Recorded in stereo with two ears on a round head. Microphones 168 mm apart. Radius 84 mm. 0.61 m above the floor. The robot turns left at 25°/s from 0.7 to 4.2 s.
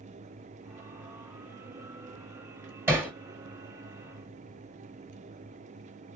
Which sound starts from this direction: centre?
Hammering, at 2.9 s.